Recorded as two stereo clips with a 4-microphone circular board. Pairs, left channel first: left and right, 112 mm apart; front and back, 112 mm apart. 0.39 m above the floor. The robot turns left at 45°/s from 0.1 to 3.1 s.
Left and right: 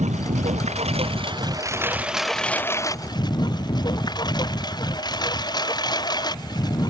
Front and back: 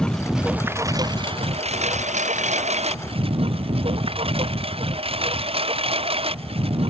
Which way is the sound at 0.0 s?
85° right.